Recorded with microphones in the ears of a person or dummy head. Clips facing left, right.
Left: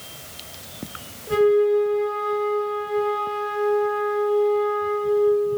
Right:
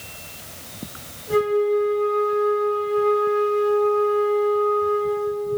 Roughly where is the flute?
Left.